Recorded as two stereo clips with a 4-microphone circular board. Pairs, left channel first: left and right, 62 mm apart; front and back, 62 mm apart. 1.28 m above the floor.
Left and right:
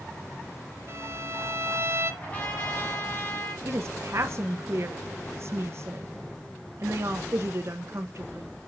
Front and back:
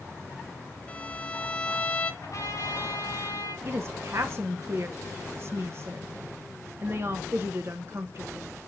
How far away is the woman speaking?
About 1.0 m.